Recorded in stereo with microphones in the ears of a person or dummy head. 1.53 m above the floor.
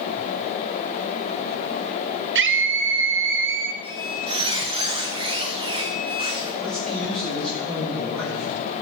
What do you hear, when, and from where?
2.4 s a scream: 60° right (ahead or behind), 0.8 m
3.8 s a squeak: 25° right (ahead or behind), 1.3 m
6.6 s a man speaking: 5° left (ahead or behind), 5 m